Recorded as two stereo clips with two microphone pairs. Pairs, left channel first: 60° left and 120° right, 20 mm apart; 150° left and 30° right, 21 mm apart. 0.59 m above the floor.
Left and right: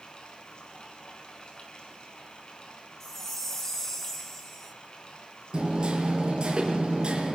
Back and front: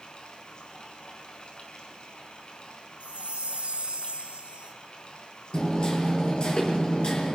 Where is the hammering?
165° right, 7.5 m.